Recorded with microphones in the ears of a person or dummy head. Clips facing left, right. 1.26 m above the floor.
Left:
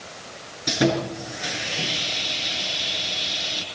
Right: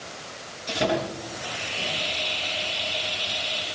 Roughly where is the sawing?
Left.